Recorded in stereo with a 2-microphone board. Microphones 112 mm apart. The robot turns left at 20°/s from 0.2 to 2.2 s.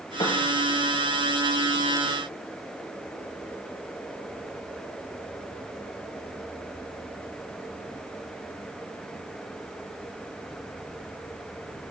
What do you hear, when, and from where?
0.2 s a piano: 50° left (ahead or behind), 8 m; by 0.4 s 45° left (ahead or behind), 8 m